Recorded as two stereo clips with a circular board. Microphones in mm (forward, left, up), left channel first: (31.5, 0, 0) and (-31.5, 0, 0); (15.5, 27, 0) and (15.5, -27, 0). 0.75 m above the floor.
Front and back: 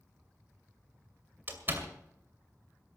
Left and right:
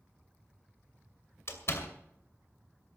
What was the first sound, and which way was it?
A door slam, 125° left.